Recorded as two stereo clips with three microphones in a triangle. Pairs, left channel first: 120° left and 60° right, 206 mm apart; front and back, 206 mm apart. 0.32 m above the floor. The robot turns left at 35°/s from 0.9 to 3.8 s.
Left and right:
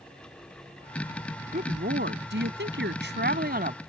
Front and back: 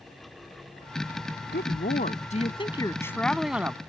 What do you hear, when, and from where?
1.5 s a woman speaking: 25° right; by 3.8 s 100° right